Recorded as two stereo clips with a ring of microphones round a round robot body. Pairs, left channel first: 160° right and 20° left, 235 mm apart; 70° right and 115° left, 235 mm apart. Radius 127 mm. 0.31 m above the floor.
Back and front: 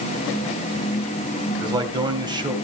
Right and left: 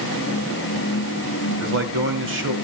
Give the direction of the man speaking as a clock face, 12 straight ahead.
9 o'clock.